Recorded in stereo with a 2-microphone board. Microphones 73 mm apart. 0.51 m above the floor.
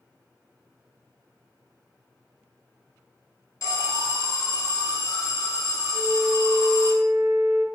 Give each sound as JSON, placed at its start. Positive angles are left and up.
{"t": 3.6, "sound": "an alarm", "side_deg": 50, "distance_m": 1.0}
{"t": 5.9, "sound": "a flute", "side_deg": -15, "distance_m": 1.0}